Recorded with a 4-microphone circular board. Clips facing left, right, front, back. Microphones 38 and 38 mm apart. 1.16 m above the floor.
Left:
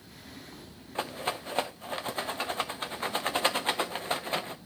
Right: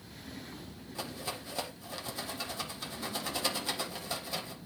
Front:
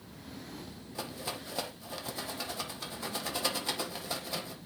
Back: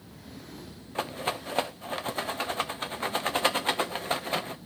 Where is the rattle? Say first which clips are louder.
Left 7 dB, back 8 dB; 135° left, 0.7 m.